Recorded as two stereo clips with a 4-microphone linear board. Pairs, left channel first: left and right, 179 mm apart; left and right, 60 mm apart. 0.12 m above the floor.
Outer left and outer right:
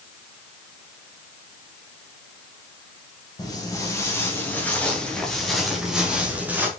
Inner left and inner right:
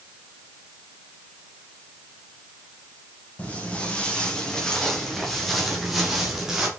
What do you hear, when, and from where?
3.4 s footsteps: 20° left (ahead or behind), 3.5 m; by 6.7 s 10° right (ahead or behind), 3.5 m